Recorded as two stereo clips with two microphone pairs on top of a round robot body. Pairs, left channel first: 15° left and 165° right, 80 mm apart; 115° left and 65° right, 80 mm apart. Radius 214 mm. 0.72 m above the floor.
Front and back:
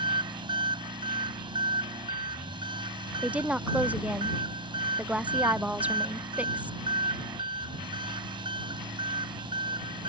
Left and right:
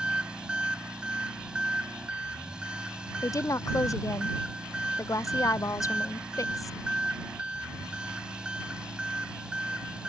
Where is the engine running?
140° right.